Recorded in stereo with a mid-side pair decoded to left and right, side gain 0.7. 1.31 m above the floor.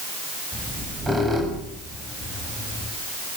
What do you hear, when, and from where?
0.5 s a squeak: 10° right, 7 m